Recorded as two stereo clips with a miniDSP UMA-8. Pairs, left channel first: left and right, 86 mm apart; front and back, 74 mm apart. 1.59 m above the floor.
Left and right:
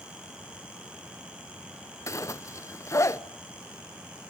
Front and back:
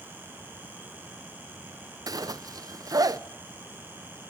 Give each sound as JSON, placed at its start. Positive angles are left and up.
{"t": 2.1, "sound": "a zipper", "azimuth_deg": 145, "distance_m": 0.8}